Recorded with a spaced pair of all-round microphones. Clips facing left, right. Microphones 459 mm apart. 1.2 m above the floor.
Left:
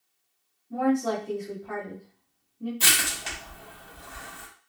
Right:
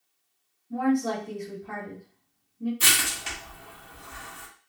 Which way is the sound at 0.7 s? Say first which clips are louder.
Even; 25° right (ahead or behind).